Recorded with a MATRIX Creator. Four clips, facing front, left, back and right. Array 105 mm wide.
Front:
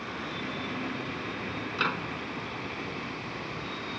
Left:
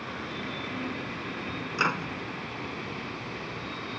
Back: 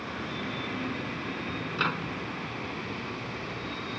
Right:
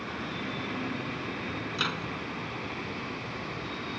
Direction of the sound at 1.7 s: 90° left.